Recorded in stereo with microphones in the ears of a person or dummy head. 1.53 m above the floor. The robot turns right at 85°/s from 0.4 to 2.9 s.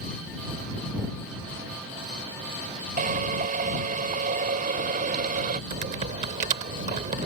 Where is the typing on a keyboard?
45° right (ahead or behind).